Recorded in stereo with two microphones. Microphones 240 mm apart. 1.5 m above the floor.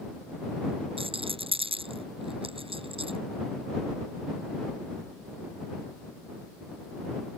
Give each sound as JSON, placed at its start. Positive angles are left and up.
{"t": 1.0, "sound": "a rattle", "side_deg": -20}